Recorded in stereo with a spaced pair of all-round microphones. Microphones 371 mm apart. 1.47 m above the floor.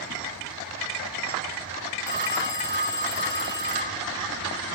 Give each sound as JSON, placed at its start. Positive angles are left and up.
{"t": 2.1, "sound": "a phone ringing", "side_deg": -10, "distance_m": 1.8}